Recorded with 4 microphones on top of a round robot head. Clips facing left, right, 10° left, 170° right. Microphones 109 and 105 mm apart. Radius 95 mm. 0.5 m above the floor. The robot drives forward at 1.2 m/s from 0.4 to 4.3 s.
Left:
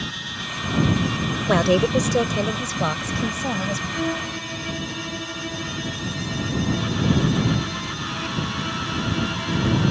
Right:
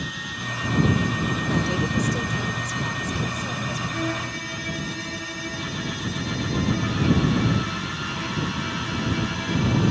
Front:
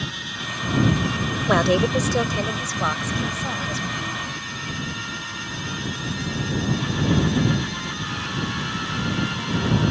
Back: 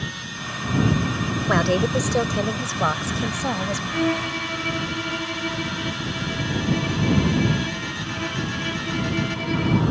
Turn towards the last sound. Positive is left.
turn(degrees=170)